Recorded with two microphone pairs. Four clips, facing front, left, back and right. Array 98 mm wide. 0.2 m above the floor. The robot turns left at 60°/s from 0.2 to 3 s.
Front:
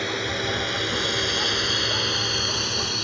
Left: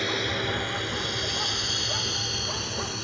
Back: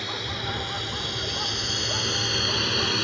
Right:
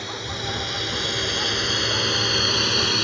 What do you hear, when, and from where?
0.0 s a drone: 30° left; by 3.0 s 115° right